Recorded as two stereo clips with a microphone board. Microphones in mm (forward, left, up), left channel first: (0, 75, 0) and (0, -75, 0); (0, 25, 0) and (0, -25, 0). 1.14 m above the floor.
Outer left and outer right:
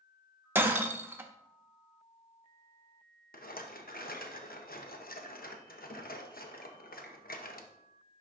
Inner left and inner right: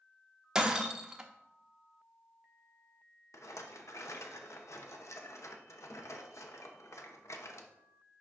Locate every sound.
0.6 s breaking glass: 15° right (ahead or behind), 0.8 m
3.3 s a rattle: 75° left (ahead or behind), 0.8 m